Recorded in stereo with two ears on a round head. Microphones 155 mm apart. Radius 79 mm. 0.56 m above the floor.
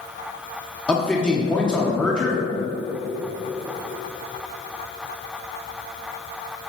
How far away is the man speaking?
About 0.9 m.